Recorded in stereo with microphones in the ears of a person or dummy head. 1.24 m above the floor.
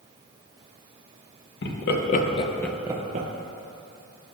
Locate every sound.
1.6 s laughter: 65° left (ahead or behind), 1.2 m; by 3.3 s 45° right (ahead or behind), 0.7 m